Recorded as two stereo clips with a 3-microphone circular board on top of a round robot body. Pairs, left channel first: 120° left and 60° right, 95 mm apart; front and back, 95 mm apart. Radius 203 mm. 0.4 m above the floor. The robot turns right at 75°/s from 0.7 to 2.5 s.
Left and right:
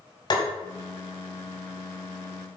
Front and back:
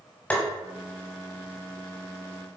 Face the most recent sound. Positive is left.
turn(degrees=-150)